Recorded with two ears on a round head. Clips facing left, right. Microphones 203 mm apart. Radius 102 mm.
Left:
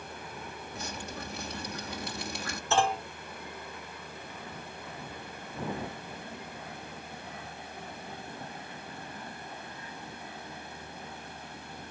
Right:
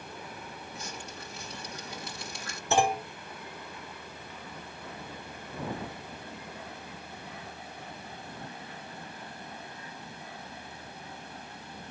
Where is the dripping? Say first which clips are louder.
Left 6 dB; 50° left (ahead or behind).